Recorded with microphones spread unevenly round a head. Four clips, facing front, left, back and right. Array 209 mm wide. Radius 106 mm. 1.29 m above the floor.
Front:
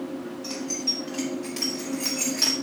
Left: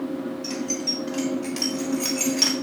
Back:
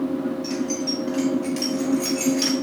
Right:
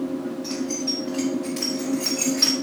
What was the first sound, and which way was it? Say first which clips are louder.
Keys jangling: right 2 dB, back 7 dB; 55° left.